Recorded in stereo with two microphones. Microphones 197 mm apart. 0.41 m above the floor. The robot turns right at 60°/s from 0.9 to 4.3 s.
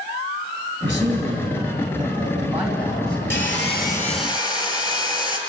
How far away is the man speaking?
About 3.5 m.